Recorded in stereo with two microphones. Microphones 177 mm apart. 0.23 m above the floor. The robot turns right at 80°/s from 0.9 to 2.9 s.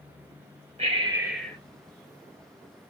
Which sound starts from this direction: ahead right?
Breathing, at 0.8 s.